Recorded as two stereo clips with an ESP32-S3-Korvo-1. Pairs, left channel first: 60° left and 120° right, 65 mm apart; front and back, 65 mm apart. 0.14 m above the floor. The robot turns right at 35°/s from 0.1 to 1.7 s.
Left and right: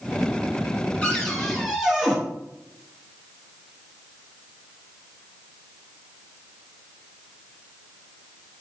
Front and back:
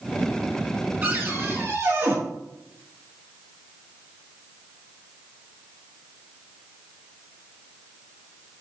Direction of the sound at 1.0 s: 130° left.